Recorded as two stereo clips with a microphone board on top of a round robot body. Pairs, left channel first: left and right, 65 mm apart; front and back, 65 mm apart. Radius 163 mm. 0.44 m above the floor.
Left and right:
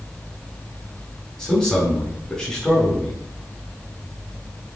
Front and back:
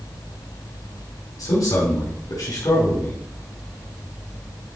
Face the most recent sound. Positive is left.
turn(degrees=15)